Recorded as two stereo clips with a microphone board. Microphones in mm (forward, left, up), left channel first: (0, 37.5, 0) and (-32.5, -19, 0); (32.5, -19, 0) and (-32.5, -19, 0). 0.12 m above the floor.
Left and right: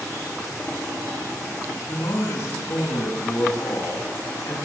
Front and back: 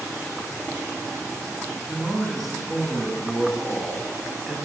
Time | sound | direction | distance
1.9 | a man speaking | 85° left | 8 m